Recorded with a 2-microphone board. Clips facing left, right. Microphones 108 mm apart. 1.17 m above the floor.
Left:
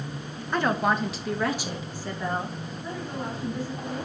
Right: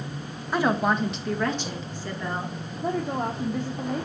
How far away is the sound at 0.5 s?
About 1.2 m.